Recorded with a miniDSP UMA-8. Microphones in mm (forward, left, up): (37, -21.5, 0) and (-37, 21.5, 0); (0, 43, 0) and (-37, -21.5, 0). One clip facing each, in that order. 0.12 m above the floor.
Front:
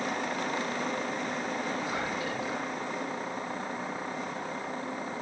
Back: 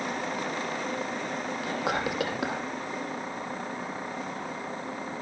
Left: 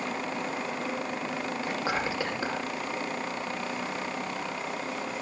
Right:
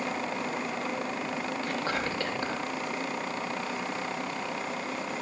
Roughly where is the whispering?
Behind left.